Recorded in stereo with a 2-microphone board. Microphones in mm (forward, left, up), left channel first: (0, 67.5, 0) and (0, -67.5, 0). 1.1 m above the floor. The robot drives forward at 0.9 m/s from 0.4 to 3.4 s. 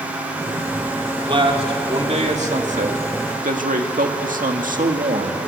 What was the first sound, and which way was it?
A man speaking, 40° right (ahead or behind).